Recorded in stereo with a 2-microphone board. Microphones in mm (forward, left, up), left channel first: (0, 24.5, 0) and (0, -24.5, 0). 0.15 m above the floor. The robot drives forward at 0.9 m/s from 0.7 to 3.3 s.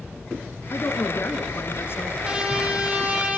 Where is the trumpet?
20° right (ahead or behind), 4.5 m; by 3.4 s 25° right (ahead or behind), 3.5 m.